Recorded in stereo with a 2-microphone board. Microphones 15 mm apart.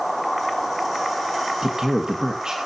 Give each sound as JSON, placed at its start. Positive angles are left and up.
{"t": 1.6, "sound": "a man speaking", "side_deg": -45, "distance_m": 1.8}